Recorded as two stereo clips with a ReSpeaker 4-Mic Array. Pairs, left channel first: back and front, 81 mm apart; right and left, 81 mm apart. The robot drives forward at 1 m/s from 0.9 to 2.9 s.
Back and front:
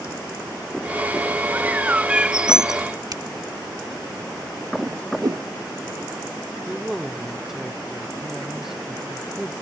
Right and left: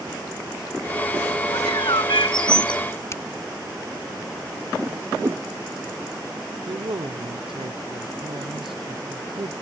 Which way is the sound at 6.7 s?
85° left.